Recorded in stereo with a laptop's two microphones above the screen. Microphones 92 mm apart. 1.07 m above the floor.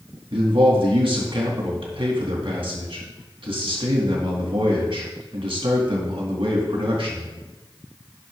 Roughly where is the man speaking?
Right.